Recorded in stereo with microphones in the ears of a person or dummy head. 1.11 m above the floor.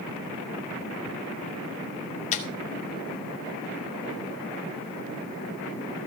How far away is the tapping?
About 1.9 m.